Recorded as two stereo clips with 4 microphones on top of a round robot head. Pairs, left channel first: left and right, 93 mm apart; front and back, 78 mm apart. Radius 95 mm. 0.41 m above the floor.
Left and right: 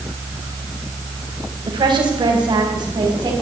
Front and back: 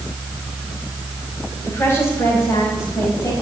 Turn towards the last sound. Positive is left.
turn(degrees=-50)